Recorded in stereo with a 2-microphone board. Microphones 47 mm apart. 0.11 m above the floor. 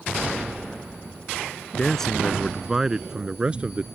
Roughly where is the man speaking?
Centre.